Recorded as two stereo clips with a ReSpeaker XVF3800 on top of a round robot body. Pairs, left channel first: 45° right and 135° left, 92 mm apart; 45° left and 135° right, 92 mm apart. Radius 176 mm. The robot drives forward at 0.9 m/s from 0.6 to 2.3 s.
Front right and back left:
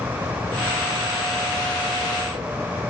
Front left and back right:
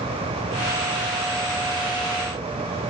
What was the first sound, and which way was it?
Only background noise.